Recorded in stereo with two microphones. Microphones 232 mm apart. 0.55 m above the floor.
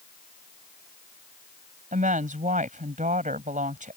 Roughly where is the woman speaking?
Right.